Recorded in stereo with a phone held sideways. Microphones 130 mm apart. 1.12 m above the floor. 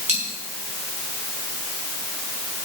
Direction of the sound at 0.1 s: 65° right (ahead or behind).